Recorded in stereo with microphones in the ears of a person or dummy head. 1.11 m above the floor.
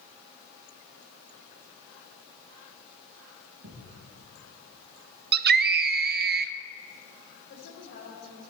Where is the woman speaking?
70° left (ahead or behind), 4.5 m.